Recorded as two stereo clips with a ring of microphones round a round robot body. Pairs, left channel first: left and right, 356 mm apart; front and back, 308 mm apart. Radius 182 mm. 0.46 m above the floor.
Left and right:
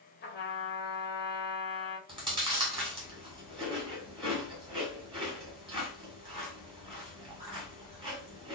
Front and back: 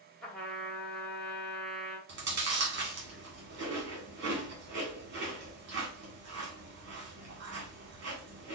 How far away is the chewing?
About 1.5 m.